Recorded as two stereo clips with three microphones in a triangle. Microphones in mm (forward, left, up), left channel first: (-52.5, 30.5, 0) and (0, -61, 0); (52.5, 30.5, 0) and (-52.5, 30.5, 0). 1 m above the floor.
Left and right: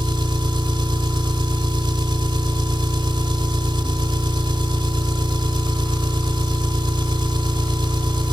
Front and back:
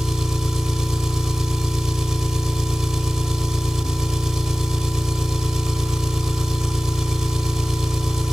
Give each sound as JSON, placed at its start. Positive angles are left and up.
{"t": 0.0, "sound": "an engine running", "azimuth_deg": -95, "distance_m": 1.8}